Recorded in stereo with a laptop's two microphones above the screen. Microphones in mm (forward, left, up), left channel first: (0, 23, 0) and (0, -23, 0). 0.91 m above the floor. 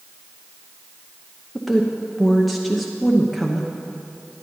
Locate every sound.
1.6 s a woman speaking: centre (ahead or behind), 0.8 m